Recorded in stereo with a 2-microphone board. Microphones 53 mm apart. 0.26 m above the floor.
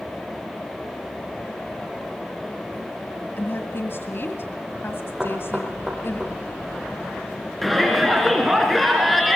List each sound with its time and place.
3.4 s a woman speaking: 45° left (ahead or behind), 1.8 m
5.2 s knocking: 5° right (ahead or behind), 6 m
7.6 s a shout: centre (ahead or behind), 3 m